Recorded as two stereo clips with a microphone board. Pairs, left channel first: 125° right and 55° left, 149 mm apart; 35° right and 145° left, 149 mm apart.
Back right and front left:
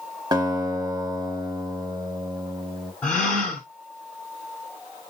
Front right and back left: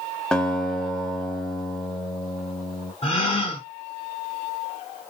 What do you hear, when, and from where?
0.3 s a guitar: 45° left, 0.7 m
3.0 s a gasp: 45° right, 1.3 m